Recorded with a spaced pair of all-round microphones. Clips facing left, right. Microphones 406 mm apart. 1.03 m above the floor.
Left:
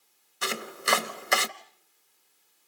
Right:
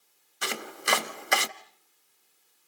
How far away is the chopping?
About 0.8 m.